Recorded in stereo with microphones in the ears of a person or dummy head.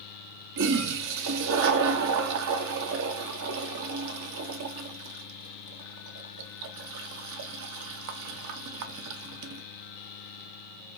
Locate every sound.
0.6 s a toilet flushing: 65° right (ahead or behind), 0.6 m